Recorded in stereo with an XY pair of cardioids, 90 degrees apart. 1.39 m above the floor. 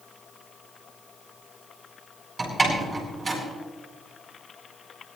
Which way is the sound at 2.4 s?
30° right.